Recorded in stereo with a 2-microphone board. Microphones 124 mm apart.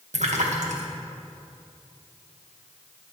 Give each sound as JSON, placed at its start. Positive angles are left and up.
{"t": 0.1, "sound": "a splash", "side_deg": -80, "distance_m": 1.7}